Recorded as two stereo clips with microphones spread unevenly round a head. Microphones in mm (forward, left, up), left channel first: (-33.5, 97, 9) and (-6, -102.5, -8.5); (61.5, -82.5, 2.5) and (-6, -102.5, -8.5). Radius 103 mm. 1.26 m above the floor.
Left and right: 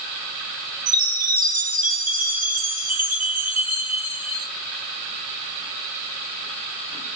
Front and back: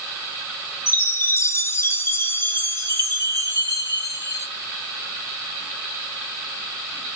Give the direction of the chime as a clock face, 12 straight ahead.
1 o'clock.